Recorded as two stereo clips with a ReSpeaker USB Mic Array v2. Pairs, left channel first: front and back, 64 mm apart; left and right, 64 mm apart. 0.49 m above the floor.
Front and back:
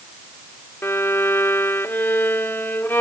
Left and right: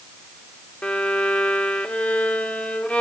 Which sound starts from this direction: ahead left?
A violin, at 0.8 s.